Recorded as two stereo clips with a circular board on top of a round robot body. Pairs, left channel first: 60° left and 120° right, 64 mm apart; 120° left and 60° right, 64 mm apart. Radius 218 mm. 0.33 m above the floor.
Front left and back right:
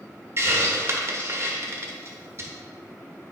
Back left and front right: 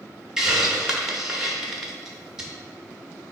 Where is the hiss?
135° right, 1.1 m.